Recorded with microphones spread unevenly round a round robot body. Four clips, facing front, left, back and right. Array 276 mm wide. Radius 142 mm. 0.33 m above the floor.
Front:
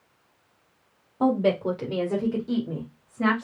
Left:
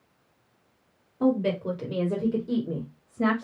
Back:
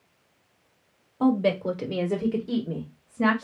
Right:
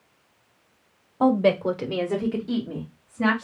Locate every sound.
1.2 s a woman speaking: 95° right, 1.3 m; by 3.5 s 125° left, 1.8 m